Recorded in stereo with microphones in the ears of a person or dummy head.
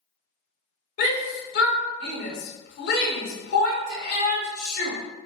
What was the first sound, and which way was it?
A shout, 60° left (ahead or behind).